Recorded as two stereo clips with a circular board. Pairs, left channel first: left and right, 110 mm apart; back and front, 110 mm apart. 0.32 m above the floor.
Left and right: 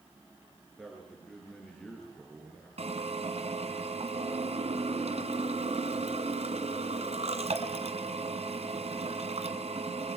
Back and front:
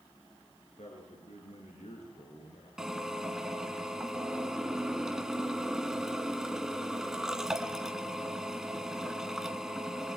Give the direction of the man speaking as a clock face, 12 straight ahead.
6 o'clock.